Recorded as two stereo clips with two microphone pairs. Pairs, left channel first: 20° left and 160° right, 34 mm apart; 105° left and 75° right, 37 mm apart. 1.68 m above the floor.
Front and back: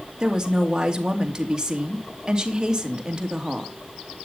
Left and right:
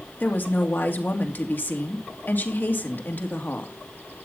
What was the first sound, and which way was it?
A woman speaking, 130° left.